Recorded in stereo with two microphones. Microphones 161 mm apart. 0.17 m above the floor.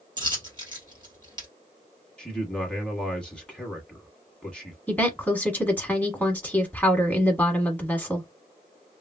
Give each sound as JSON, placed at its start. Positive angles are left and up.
{"t": 0.2, "sound": "a dropped coin", "side_deg": -30, "distance_m": 1.5}
{"t": 2.2, "sound": "a man speaking", "side_deg": 5, "distance_m": 1.0}
{"t": 4.9, "sound": "a woman speaking", "side_deg": 10, "distance_m": 1.2}